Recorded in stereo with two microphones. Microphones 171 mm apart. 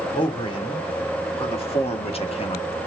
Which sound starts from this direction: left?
A man speaking, at 0.1 s.